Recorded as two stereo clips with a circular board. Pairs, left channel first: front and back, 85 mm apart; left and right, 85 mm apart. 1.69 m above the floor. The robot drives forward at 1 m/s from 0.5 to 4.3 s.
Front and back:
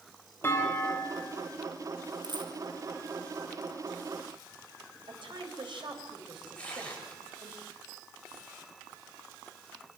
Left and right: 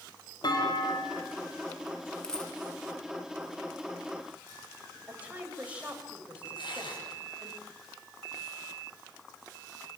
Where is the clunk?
60° left, 5 m; by 1.3 s 70° left, 4.5 m.